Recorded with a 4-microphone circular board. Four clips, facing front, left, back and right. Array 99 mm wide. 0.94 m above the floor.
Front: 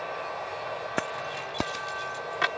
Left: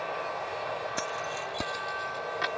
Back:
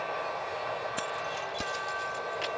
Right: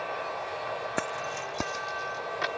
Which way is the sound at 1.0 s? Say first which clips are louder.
Right 1 dB, front 2 dB; 30° right.